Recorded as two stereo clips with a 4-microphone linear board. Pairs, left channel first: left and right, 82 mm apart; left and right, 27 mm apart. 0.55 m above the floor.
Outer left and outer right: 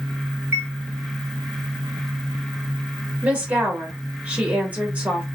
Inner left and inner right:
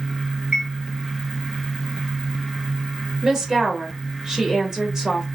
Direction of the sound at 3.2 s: 20° right (ahead or behind).